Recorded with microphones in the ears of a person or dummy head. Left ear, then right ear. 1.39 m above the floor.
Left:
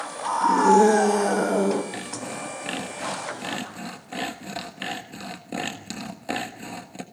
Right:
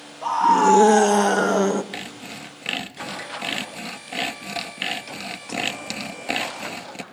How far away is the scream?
About 2.5 m.